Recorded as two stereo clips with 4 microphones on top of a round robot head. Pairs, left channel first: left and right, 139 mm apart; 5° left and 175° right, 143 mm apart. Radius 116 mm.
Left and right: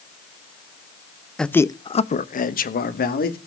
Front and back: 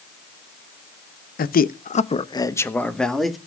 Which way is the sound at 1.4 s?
5° left.